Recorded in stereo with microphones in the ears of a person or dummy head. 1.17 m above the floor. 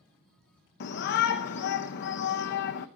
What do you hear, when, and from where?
0.8 s a shout: 55° left (ahead or behind), 1.0 m